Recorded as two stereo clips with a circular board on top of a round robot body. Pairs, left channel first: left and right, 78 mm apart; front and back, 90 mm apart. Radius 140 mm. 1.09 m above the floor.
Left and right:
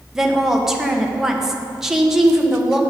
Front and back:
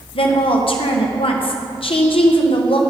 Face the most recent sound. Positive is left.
turn(degrees=-5)